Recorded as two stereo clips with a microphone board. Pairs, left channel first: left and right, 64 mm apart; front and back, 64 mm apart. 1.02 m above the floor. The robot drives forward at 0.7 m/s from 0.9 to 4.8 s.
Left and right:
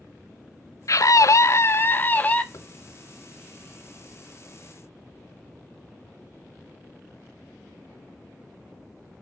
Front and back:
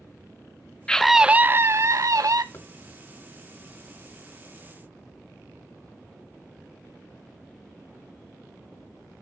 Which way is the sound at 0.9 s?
75° left.